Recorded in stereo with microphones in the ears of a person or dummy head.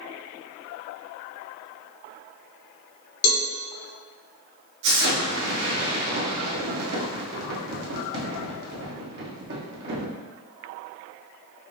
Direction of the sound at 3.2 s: 90° left.